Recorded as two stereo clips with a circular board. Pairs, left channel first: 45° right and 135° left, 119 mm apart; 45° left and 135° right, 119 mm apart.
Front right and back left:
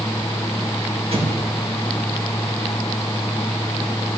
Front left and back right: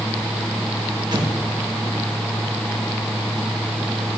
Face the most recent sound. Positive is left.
turn(degrees=170)